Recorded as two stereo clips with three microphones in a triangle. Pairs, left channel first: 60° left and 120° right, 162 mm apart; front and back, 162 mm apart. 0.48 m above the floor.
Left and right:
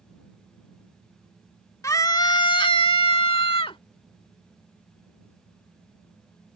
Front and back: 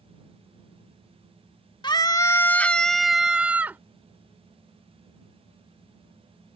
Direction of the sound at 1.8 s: 10° left.